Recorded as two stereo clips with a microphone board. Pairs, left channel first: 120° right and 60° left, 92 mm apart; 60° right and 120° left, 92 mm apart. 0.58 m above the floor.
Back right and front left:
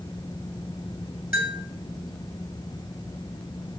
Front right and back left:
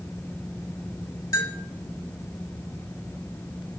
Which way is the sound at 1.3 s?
10° right.